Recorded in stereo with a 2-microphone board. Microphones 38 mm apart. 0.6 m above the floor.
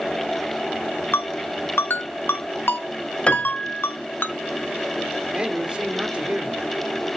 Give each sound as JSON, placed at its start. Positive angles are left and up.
{"t": 1.1, "sound": "a ringtone", "side_deg": 80, "distance_m": 1.1}
{"t": 3.3, "sound": "a piano", "side_deg": 30, "distance_m": 1.8}
{"t": 5.3, "sound": "a man speaking", "side_deg": -30, "distance_m": 2.0}